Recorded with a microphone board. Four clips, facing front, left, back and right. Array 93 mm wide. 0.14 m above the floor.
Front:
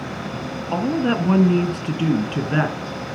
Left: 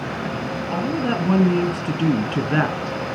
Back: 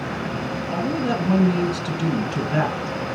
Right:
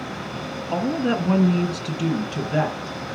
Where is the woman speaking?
10° right, 1.7 m; by 3.0 s 75° left, 2.0 m.